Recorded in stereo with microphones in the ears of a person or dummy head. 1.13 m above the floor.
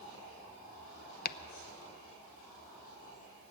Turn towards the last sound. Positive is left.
turn(degrees=50)  # may be behind; listen again after turning